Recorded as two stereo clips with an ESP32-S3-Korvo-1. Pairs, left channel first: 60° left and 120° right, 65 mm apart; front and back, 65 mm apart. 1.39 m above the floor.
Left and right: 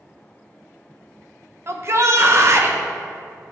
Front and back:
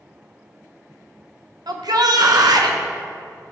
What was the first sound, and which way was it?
A shout, 170° right.